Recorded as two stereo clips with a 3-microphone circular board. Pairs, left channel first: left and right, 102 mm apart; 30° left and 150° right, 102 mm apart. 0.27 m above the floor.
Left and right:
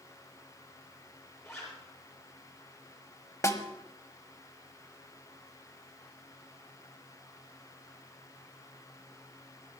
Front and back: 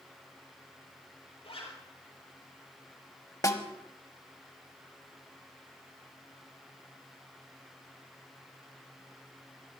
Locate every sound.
1.4 s a zipper: 30° left, 6.5 m
3.4 s a snare drum: 55° left, 1.0 m